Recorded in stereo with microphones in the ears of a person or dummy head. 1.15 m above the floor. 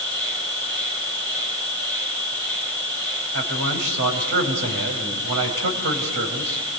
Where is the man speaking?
65° right (ahead or behind), 5 m.